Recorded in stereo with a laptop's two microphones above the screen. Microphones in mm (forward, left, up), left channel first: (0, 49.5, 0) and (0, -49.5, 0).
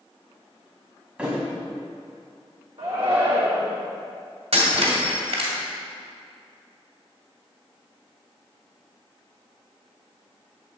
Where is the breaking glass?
70° right (ahead or behind), 1.9 m.